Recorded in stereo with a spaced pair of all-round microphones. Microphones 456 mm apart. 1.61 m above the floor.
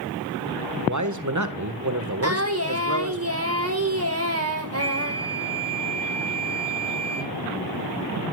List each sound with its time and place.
0.9 s a man speaking: 40° right (ahead or behind), 1.5 m
2.2 s singing: 30° right (ahead or behind), 1.9 m
4.8 s a flute: 30° right (ahead or behind), 1.0 m